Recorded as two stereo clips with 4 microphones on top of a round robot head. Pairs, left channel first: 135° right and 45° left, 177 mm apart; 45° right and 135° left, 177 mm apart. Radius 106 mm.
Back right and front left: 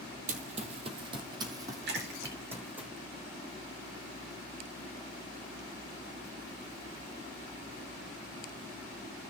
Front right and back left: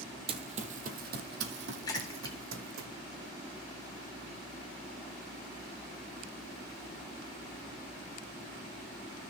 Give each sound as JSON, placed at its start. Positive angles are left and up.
{"t": 0.3, "sound": "running footsteps", "azimuth_deg": 80, "distance_m": 1.1}
{"t": 1.9, "sound": "a splash", "azimuth_deg": 25, "distance_m": 3.0}